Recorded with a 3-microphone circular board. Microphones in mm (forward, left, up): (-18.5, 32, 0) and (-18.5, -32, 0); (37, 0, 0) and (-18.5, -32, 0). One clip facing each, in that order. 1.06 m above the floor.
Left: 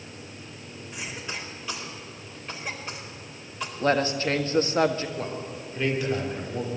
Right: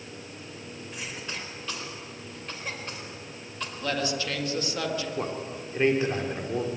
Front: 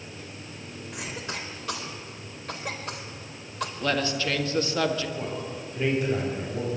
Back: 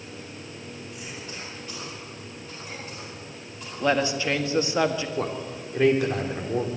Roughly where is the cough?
Ahead.